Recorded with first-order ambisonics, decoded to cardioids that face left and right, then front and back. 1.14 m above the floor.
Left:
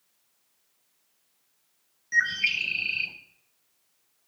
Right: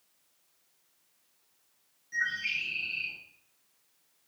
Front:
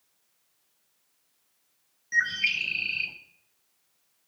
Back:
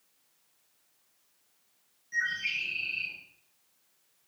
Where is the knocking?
I don't hear knocking.